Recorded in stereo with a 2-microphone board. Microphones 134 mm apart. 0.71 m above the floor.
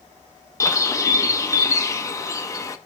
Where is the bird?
25° left (ahead or behind), 0.7 m.